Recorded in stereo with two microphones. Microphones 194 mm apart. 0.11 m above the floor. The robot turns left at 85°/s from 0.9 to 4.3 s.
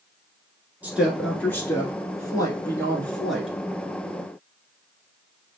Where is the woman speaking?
10° right (ahead or behind), 1.1 m; by 3.5 s 5° right (ahead or behind), 1.1 m.